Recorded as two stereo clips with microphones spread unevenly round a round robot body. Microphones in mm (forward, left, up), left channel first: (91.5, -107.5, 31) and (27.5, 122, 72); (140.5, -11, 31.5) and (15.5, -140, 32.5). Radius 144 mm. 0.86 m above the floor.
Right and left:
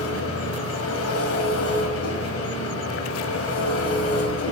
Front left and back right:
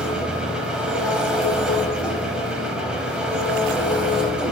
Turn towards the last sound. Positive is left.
turn(degrees=-50)